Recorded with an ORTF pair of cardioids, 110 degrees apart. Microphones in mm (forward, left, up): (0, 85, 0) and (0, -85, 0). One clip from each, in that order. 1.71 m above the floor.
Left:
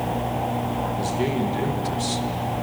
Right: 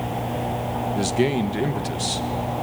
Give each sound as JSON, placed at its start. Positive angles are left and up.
{"t": 0.9, "sound": "a man speaking", "azimuth_deg": -55, "distance_m": 1.9}